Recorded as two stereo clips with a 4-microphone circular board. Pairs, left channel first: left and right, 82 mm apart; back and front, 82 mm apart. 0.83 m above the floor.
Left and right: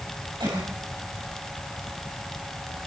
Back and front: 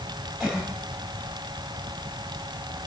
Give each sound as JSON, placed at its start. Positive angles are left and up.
{"t": 0.4, "sound": "a cough", "azimuth_deg": -95, "distance_m": 6.5}